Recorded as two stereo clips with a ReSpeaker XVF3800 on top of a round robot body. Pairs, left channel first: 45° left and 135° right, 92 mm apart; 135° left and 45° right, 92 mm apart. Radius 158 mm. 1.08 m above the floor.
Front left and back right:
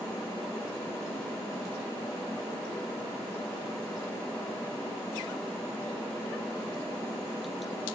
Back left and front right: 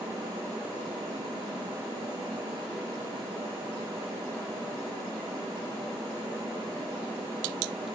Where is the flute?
No flute in this recording.